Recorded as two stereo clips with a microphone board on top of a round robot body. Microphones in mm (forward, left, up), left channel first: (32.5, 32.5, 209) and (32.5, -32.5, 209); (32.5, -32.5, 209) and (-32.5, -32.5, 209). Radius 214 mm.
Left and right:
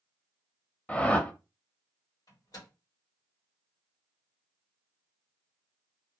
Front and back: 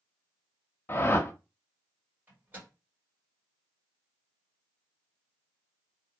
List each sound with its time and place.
0.9 s a whoosh: 30° left, 0.8 m
2.3 s a microwave: 115° left, 1.7 m